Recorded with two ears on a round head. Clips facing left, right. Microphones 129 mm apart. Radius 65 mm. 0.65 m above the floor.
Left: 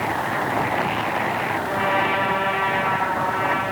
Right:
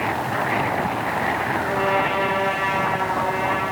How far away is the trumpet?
About 4.5 m.